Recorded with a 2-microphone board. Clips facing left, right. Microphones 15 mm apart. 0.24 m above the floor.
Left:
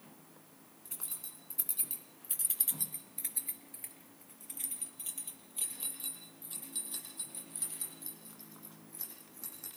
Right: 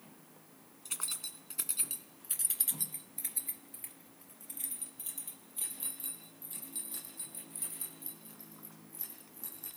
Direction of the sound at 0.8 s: 55° right (ahead or behind).